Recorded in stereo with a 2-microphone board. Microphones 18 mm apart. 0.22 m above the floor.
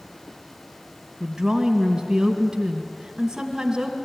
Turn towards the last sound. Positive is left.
turn(degrees=-35)  # may be behind; listen again after turning